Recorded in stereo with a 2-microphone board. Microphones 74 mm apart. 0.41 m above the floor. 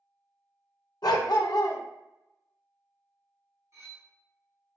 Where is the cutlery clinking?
45° right (ahead or behind), 2.0 m.